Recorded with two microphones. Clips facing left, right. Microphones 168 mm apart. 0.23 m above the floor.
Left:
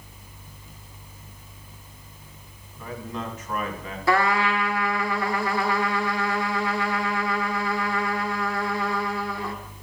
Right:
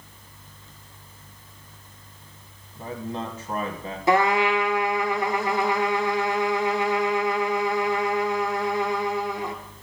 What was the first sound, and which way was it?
A man speaking, 35° right (ahead or behind).